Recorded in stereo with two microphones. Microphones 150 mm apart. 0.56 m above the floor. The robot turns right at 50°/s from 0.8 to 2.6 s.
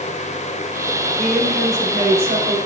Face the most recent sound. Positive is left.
turn(degrees=-115)